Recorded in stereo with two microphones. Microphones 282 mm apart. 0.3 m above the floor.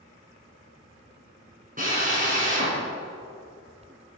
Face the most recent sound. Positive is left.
turn(degrees=-30)  # may be behind; listen again after turning